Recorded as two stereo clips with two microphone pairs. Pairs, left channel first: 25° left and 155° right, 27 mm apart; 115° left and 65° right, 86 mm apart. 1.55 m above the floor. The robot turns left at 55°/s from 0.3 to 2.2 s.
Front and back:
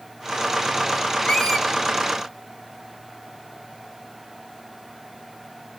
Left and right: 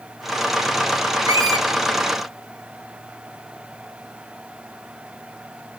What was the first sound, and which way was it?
A squeak, 25° right.